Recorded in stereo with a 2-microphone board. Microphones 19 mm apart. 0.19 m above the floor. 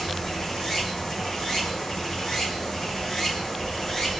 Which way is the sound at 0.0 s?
30° left (ahead or behind).